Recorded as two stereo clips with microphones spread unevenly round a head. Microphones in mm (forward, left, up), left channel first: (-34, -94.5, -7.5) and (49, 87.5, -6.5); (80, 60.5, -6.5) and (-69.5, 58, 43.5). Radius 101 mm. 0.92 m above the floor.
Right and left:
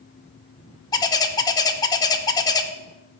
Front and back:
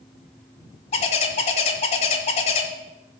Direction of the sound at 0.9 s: 60° right.